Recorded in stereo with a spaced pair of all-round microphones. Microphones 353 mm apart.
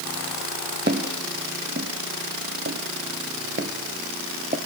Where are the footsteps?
30° right (ahead or behind), 2 m; by 4.6 s 25° right (ahead or behind), 1.3 m.